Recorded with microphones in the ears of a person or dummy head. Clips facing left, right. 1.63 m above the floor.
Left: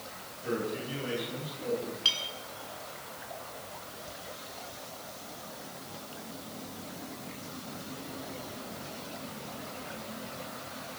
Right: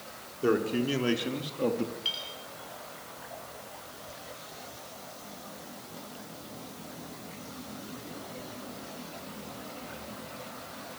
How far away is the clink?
About 9.5 m.